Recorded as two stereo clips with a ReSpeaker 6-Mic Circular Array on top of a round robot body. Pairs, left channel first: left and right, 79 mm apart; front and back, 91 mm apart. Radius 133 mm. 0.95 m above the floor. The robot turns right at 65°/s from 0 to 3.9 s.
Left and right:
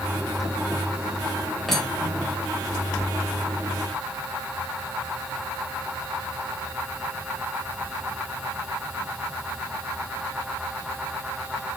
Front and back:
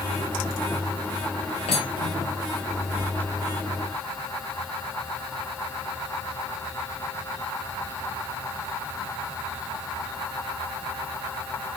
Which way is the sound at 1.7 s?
Straight ahead.